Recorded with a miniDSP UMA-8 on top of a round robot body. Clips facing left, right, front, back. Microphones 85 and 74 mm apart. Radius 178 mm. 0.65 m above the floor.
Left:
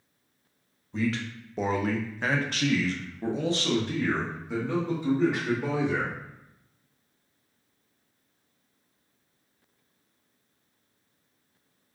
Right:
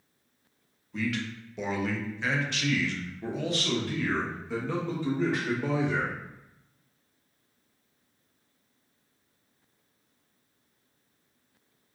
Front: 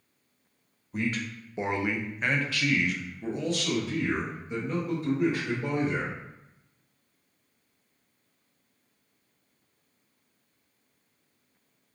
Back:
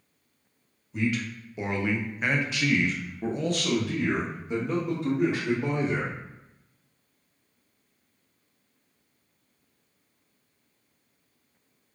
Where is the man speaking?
35° left, 1.0 m; by 6.2 s 165° left, 2.5 m.